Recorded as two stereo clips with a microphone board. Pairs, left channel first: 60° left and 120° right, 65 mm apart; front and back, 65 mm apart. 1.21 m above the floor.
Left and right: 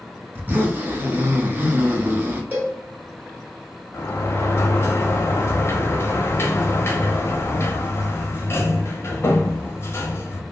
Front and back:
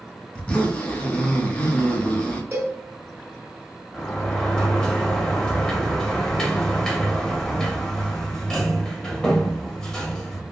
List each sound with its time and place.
0.3 s a zipper: 70° right, 0.7 m
2.5 s a cowbell: 165° right, 1.1 m
3.9 s a sliding door: 75° left, 0.7 m